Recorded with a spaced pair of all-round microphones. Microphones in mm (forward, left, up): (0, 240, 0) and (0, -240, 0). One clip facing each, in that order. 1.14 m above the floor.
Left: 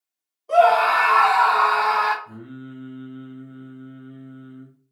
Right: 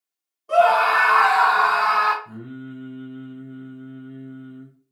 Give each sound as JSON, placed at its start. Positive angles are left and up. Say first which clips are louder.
{"t": 0.5, "sound": "a scream", "louder": "left 1 dB", "side_deg": -30, "distance_m": 1.2}
{"t": 2.2, "sound": "singing", "louder": "right 2 dB", "side_deg": -45, "distance_m": 0.9}